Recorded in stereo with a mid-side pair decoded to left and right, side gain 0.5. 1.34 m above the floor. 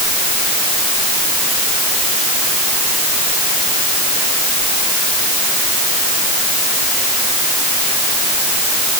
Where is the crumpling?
I don't hear crumpling.